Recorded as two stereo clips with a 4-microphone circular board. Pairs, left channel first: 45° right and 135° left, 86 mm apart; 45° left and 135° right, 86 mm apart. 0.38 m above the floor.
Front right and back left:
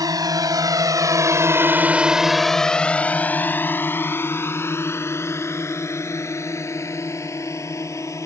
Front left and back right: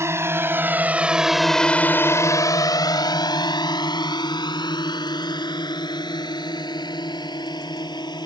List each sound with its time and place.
0.0 s a drone: 170° left; by 8.3 s 10° left